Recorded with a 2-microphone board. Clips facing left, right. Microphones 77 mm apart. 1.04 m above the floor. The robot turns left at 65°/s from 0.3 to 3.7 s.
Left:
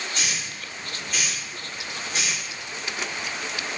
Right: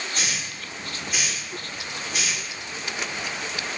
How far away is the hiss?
About 1.1 m.